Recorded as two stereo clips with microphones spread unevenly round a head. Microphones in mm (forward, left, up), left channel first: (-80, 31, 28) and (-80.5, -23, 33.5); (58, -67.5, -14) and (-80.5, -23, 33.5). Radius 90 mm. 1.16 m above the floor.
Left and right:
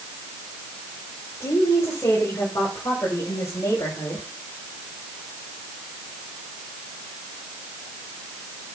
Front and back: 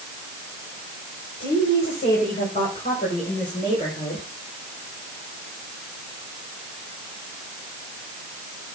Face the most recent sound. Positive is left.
turn(degrees=45)